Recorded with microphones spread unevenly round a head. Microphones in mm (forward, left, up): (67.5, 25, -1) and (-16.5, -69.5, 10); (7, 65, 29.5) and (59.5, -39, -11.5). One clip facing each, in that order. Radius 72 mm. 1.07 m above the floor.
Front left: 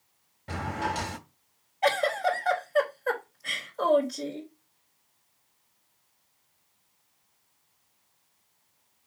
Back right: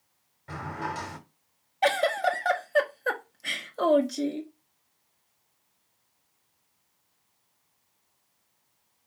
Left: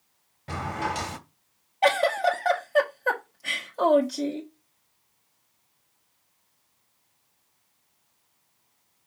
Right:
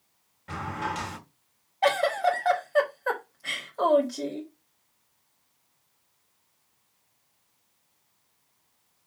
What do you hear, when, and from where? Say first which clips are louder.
0.5 s a drawer: front left 3 dB, left 2 dB; 115° left, 1.0 m
1.8 s a giggle: back right 1 dB, left 1 dB; 165° right, 1.5 m